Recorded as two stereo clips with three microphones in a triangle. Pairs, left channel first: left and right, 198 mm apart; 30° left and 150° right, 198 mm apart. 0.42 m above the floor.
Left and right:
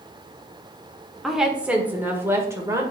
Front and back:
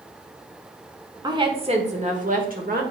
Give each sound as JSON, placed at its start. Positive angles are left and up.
{"t": 1.2, "sound": "a woman speaking", "azimuth_deg": 180, "distance_m": 1.2}